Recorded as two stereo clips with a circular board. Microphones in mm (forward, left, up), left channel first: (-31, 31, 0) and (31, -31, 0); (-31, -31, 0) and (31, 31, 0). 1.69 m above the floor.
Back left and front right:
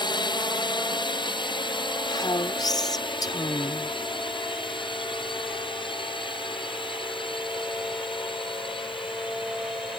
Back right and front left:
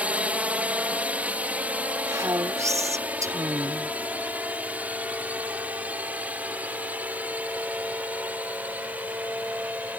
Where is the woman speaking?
95° left.